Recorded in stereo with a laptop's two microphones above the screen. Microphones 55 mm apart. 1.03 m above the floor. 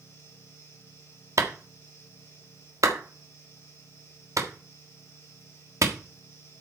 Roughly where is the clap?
Right.